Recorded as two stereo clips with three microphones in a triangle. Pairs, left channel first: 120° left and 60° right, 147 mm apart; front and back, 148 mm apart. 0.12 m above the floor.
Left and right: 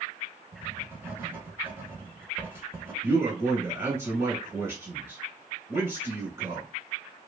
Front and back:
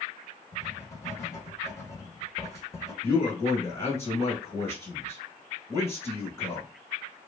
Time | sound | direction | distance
0.5 | writing | 15° right | 1.0 m
3.0 | a man speaking | 35° right | 1.4 m